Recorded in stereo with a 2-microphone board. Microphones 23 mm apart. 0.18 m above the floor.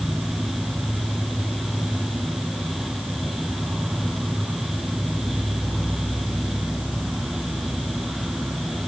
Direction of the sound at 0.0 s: 60° right (ahead or behind).